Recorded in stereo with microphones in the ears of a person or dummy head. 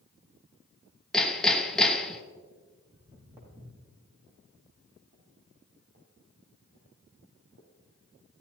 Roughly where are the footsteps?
Centre.